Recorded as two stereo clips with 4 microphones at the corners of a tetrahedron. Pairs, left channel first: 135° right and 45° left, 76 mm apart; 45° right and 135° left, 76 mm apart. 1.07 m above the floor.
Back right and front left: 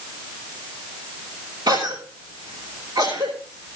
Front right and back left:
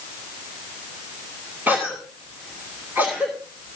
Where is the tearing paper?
I don't hear tearing paper.